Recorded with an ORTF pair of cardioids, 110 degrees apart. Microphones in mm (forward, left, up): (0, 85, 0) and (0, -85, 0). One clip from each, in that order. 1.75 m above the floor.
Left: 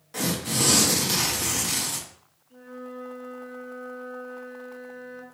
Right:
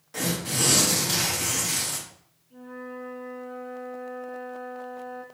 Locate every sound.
0.1 s tearing paper: 5° left, 1.0 m
2.5 s a flute: 20° left, 1.3 m